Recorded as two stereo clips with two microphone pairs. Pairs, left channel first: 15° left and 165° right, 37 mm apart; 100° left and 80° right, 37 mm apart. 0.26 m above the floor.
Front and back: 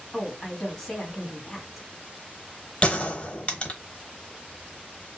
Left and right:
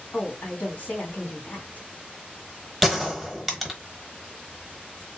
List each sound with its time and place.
0.1 s a woman speaking: 100° left, 1.7 m
2.8 s a gunshot: 10° left, 1.0 m